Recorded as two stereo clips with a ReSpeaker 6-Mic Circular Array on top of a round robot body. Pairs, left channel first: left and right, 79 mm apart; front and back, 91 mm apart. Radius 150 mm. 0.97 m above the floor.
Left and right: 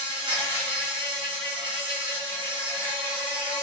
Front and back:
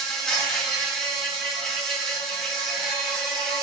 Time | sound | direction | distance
0.0 | an insect | 85° right | 1.4 m